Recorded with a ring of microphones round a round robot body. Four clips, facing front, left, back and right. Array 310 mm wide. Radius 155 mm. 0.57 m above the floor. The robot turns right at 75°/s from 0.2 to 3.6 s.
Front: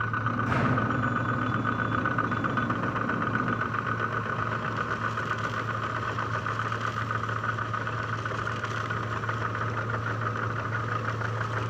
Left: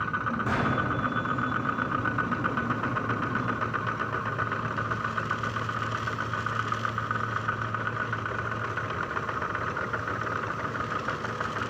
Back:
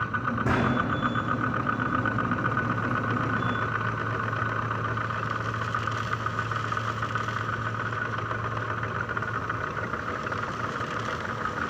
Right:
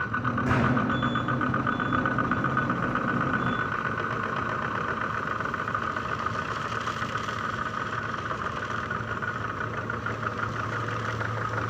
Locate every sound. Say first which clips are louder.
0.5 s a gunshot: right 4 dB, back 3 dB; 170° right, 4.5 m; by 0.8 s 145° right, 4.5 m